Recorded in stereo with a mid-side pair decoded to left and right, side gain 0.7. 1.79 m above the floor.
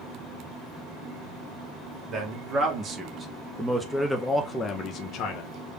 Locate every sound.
2.1 s a man speaking: 40° right, 1.6 m; by 5.5 s 60° left, 0.9 m